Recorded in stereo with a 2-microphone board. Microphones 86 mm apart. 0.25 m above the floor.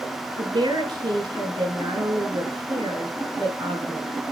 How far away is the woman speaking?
About 3.5 m.